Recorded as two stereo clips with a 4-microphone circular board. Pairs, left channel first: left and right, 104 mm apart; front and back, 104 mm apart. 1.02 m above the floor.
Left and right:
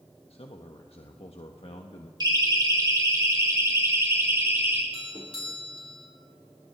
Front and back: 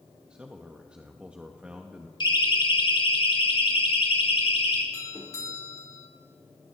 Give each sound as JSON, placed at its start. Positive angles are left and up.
{"t": 0.3, "sound": "a man speaking", "azimuth_deg": 100, "distance_m": 1.2}
{"t": 2.2, "sound": "a siren", "azimuth_deg": -45, "distance_m": 3.0}
{"t": 4.9, "sound": "a doorbell", "azimuth_deg": 60, "distance_m": 4.0}